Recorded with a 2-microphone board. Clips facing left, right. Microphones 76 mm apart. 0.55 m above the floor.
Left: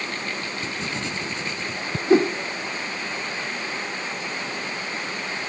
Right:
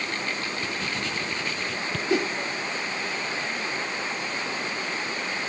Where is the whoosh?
35° left (ahead or behind).